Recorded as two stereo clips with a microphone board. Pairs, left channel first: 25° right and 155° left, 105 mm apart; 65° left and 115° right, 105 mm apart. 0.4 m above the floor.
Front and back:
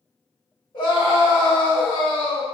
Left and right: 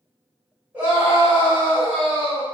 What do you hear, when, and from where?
0.7 s a scream: 45° right, 1.7 m